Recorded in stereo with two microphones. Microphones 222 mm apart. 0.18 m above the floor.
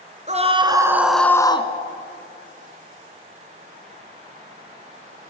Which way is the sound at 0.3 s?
30° right (ahead or behind).